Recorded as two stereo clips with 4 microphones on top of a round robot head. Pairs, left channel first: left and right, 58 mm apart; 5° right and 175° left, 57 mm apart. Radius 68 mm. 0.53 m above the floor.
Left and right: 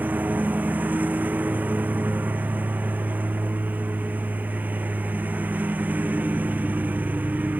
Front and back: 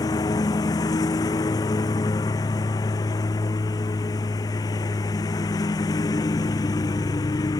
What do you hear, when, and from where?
0.0 s a lawn mower: 25° right